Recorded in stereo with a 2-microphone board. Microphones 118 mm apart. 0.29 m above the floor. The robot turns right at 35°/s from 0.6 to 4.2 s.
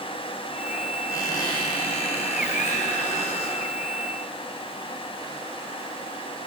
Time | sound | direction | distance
1.1 | a squeak | 25° left | 3 m